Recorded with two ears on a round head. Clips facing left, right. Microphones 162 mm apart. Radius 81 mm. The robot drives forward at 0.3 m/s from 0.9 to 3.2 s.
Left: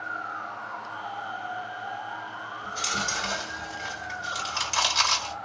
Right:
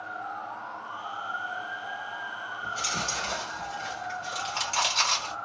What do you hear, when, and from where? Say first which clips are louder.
2.6 s chewing: left 1 dB; 15° left (ahead or behind), 1.6 m; by 5.3 s 10° left (ahead or behind), 1.7 m